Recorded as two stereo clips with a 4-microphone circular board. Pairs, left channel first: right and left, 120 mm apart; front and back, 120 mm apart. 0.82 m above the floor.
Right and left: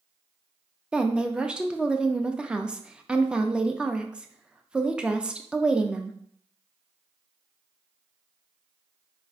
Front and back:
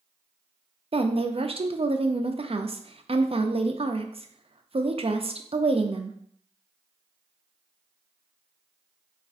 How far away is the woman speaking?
About 0.5 m.